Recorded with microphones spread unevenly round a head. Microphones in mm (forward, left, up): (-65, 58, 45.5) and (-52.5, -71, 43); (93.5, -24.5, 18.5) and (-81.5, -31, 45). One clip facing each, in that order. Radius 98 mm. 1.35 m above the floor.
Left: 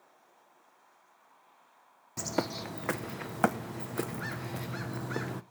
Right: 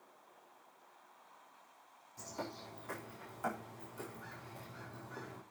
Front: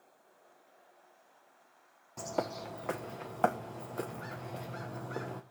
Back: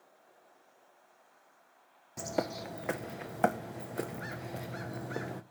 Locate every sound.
2.2 s a bird: 105° left, 0.9 m